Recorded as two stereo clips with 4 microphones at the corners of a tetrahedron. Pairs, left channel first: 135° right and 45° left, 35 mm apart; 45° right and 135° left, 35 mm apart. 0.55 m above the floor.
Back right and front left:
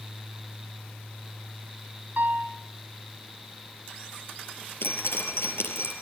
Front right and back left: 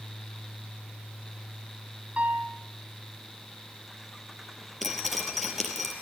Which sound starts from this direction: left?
A piano, at 2.2 s.